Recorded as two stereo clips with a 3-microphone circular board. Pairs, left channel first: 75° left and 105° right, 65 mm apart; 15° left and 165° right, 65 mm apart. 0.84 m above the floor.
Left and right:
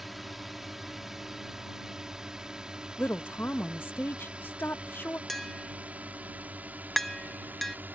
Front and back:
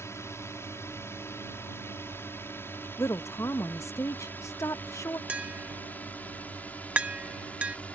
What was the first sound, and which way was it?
A drone, 20° right.